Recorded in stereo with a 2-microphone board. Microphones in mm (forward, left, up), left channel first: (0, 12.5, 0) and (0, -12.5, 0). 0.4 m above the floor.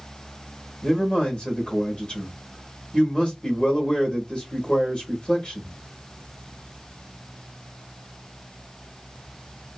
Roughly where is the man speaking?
Left.